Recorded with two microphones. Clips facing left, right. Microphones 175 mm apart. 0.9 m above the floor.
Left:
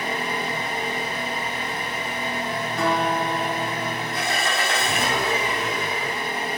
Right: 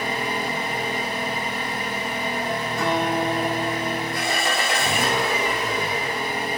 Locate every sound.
0.0 s an engine running: 15° right (ahead or behind), 0.8 m
2.8 s a guitar: 70° left (ahead or behind), 0.9 m